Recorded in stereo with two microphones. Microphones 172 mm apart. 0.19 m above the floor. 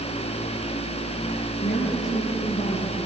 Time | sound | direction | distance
1.6 | a woman speaking | 40° left (ahead or behind) | 5 m